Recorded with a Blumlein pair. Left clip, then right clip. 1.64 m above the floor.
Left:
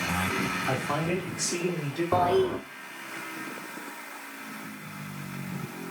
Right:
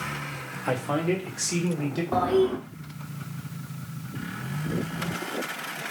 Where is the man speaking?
45° right, 1.6 m; by 2.0 s 60° right, 2.5 m.